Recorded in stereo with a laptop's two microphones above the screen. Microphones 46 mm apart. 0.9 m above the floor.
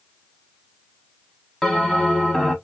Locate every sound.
1.6 s a bell: 10° left (ahead or behind), 0.5 m